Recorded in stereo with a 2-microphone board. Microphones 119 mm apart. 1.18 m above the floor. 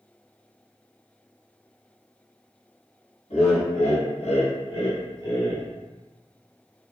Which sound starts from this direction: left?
Laughter, at 3.3 s.